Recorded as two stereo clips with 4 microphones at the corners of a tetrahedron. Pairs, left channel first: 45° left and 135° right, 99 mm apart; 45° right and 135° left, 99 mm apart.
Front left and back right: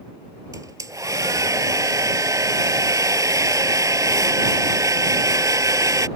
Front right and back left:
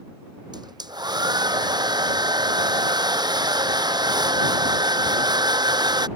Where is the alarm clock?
I don't hear an alarm clock.